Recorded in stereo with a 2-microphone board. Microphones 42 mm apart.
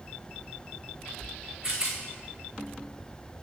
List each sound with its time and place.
1.6 s a rattle: 10° right (ahead or behind), 4 m